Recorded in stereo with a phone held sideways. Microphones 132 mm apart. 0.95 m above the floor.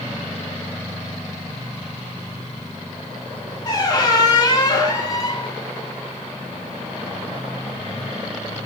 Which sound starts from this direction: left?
A squeak, at 3.6 s.